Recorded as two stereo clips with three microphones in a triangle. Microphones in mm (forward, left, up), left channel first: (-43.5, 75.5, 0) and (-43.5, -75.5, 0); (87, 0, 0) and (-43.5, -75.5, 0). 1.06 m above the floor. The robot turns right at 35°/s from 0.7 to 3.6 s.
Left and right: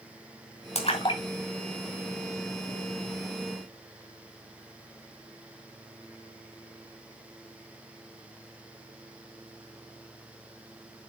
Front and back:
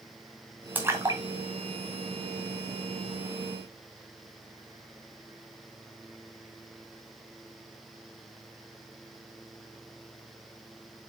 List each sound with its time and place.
0.8 s a splash: 135° left, 2.5 m; by 2.7 s 160° right, 2.5 m